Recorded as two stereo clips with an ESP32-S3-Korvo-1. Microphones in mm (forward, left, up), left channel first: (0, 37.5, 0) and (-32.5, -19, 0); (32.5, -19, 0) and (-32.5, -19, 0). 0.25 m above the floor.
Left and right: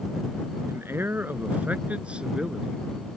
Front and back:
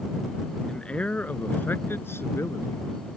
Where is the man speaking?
75° right; by 2.8 s 40° right.